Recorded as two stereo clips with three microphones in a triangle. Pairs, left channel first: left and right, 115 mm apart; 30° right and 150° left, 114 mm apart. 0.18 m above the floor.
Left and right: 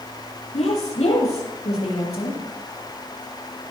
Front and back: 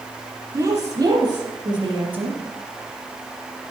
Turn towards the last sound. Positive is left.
turn(degrees=120)